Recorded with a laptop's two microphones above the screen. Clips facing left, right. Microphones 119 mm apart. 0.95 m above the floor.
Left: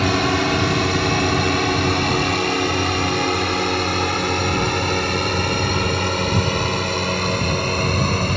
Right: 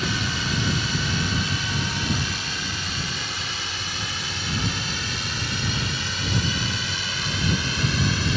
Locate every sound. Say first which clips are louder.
0.0 s a drone: left 10 dB; 70° left (ahead or behind); by 8.4 s 55° left (ahead or behind)